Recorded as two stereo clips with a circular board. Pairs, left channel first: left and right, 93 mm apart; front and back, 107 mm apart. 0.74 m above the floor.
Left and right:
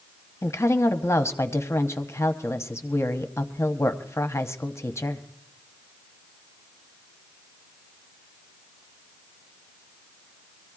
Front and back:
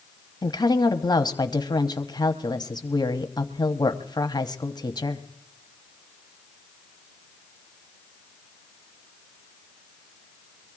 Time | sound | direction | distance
0.4 | a woman speaking | 35° left | 1.0 m